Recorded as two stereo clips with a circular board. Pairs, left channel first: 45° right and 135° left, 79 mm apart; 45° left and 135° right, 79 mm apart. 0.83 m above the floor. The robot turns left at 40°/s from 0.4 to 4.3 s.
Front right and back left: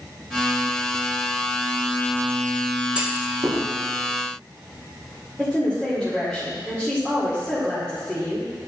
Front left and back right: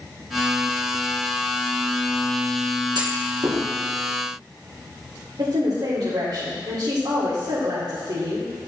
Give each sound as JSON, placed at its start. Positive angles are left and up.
{"t": 3.0, "sound": "a clunk", "azimuth_deg": -150, "distance_m": 1.4}
{"t": 5.4, "sound": "a woman speaking", "azimuth_deg": -120, "distance_m": 2.0}